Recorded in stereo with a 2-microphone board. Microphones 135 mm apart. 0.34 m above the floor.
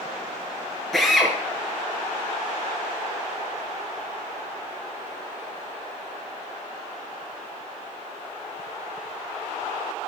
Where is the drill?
5° left (ahead or behind), 4.5 m.